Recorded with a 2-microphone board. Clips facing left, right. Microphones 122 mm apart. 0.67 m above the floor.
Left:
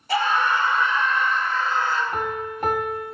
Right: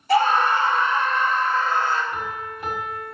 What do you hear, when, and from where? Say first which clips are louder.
0.1 s a scream: right 4 dB; 45° right (ahead or behind), 1.5 m; by 2.0 s 50° right (ahead or behind), 3 m
2.1 s a piano: left 4 dB; 55° left (ahead or behind), 1.9 m